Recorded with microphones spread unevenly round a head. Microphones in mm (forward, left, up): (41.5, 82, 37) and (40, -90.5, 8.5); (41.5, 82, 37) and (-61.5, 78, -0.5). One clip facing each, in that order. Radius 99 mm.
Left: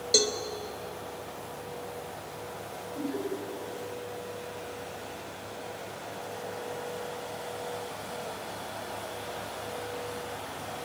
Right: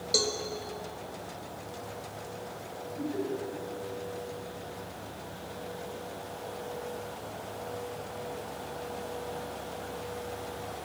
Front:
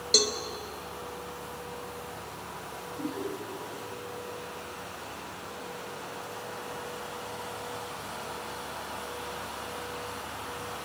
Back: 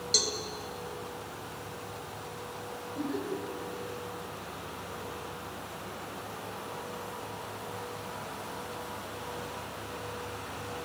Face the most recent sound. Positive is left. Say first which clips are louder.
# even, back 1 dB
turn(degrees=155)